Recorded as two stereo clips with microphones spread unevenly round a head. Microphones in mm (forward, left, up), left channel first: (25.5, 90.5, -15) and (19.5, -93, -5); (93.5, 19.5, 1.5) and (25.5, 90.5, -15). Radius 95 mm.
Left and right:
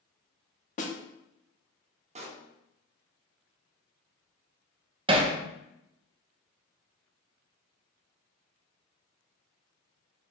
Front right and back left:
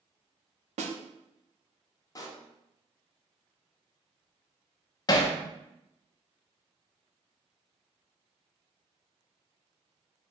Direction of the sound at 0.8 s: 145° left.